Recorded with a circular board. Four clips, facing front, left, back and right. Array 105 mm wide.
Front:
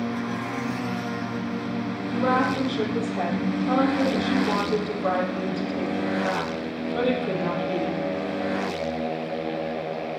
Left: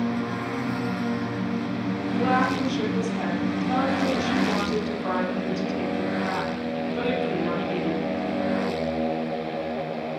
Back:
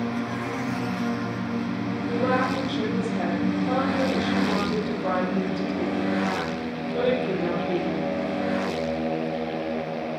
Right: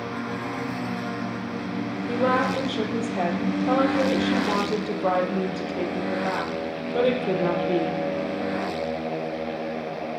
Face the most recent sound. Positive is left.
turn(degrees=-90)